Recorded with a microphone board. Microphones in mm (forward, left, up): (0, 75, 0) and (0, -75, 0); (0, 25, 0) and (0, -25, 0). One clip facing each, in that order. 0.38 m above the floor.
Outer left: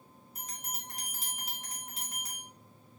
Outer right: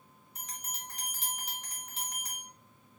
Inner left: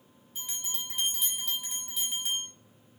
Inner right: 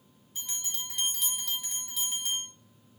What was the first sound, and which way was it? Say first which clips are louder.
A bell: outer left 1 dB, even; centre (ahead or behind).